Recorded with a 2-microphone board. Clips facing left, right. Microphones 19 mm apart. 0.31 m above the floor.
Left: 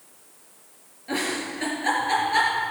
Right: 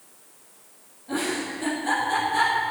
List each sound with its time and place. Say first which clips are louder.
1.1 s a giggle: even; 55° left (ahead or behind), 4 m